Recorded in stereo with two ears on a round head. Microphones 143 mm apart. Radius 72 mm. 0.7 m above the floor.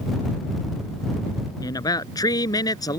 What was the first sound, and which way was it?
A man speaking, 25° left (ahead or behind).